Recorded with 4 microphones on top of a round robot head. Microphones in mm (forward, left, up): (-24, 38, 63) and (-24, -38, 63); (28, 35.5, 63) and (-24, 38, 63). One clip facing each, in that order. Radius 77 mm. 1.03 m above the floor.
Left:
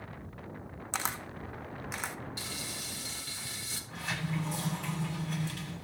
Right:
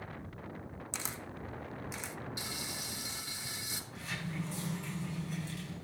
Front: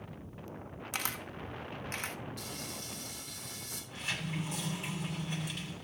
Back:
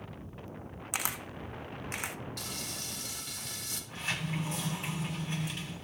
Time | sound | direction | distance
0.9 | a camera shutter | 100° left | 1.2 m
2.4 | frying | 160° right | 2.5 m
3.9 | a sliding door | 120° left | 7.5 m